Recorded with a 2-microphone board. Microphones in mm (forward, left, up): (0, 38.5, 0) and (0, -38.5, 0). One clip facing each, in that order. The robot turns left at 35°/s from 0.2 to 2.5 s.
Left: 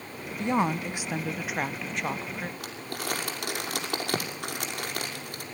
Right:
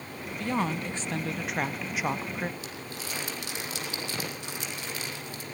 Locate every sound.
0.4 s a woman speaking: 45° left, 0.8 m; by 2.5 s 30° right, 0.8 m
2.6 s crumpling: 55° left (ahead or behind), 5.5 m